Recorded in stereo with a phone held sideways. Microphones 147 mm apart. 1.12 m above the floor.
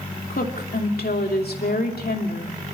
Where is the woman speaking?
85° left, 2.5 m.